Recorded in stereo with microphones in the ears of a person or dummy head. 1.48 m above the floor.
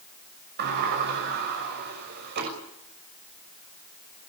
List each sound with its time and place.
0.6 s a sliding door: 55° right (ahead or behind), 6 m